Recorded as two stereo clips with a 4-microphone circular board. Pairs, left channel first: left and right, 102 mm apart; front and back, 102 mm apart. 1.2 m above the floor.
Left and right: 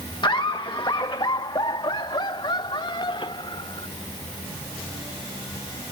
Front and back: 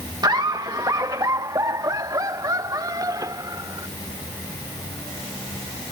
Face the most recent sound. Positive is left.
turn(degrees=125)